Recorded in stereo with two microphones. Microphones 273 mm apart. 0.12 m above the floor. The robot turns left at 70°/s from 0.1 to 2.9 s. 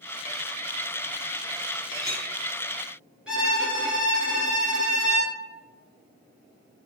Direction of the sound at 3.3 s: 5° right (ahead or behind).